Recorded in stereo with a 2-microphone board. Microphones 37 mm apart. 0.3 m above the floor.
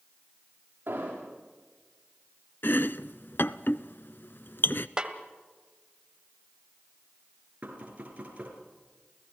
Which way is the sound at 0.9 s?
60° right (ahead or behind).